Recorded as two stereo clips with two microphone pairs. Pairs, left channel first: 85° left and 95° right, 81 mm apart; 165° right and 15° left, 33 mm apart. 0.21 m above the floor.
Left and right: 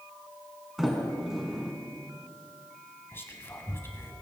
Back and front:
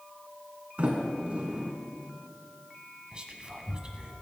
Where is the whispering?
50° left, 1.4 m.